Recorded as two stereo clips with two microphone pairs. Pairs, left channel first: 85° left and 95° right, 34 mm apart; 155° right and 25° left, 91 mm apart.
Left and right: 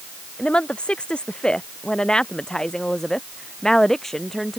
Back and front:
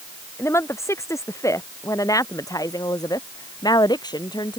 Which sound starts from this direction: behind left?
A woman speaking, at 0.4 s.